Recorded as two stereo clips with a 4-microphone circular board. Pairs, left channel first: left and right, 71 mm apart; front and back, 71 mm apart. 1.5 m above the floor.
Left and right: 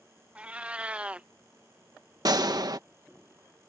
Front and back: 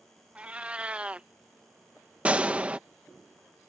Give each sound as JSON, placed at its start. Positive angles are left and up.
{"t": 0.3, "sound": "a cat meowing", "azimuth_deg": -135}
{"t": 2.2, "sound": "a gunshot", "azimuth_deg": -110}